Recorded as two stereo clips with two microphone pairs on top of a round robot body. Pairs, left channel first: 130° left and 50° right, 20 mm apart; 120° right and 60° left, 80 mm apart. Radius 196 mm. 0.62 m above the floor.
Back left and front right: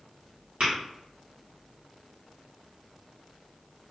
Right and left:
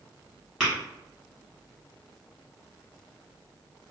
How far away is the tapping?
About 1.3 m.